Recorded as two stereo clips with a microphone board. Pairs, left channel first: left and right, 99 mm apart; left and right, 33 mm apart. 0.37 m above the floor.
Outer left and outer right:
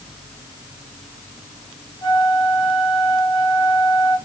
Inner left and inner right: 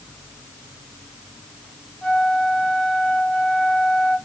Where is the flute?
40° left (ahead or behind), 2 m.